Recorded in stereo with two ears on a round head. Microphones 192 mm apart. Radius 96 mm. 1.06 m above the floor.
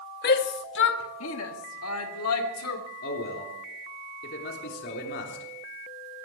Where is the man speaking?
55° left (ahead or behind), 3.5 m.